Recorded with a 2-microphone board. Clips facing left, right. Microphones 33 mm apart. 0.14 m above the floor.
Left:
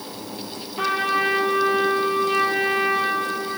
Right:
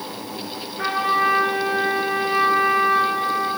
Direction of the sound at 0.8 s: 35° left (ahead or behind).